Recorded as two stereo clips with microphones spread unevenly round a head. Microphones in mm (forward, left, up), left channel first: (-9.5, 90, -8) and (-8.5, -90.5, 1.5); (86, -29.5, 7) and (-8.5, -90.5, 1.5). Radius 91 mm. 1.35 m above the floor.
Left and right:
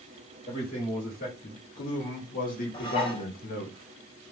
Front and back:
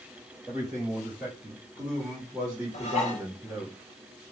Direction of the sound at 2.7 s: 25° left.